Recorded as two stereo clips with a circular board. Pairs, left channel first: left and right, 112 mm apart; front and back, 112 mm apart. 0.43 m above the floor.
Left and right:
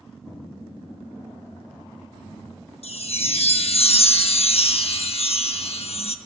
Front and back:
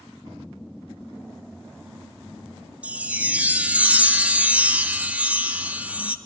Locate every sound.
2.8 s a chime: 105° left, 0.6 m